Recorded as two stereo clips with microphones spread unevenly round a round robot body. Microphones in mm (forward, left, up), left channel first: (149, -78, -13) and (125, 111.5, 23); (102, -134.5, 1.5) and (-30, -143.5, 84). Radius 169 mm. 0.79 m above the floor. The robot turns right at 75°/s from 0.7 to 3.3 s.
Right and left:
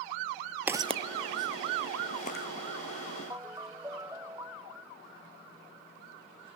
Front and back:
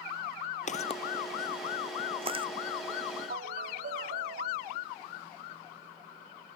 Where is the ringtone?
Straight behind.